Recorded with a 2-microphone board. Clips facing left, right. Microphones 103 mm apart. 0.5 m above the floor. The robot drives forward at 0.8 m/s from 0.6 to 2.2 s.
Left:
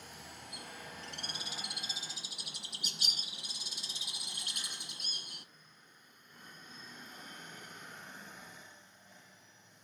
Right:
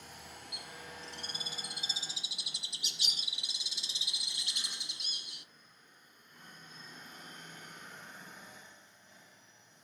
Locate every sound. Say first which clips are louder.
0.5 s a bird: left 1 dB; 45° left (ahead or behind), 1.0 m; by 5.5 s 50° left (ahead or behind), 0.9 m